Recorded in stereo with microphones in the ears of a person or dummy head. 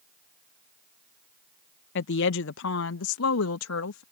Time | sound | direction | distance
1.9 | a woman speaking | 55° left (ahead or behind) | ?